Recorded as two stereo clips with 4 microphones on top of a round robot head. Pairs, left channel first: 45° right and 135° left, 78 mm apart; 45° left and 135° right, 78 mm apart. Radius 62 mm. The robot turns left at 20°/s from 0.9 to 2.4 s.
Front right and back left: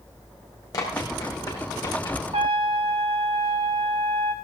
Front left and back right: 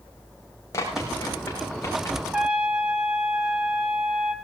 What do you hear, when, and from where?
0.7 s running footsteps: 5° right, 5.5 m; by 2.2 s 15° right, 6 m
2.3 s a trumpet: 145° left, 1.7 m; by 4.3 s 140° left, 1.7 m